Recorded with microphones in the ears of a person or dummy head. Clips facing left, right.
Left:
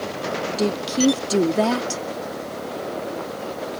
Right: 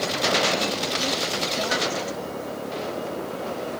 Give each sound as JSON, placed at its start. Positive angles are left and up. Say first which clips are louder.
{"t": 0.6, "sound": "a woman speaking", "louder": "left 8 dB", "side_deg": 85}